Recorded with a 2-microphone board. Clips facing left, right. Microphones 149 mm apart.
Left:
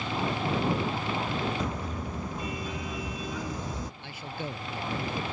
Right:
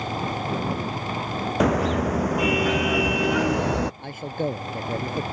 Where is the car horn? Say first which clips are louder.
Right 13 dB; 80° right; by 3.9 s 75° right (ahead or behind).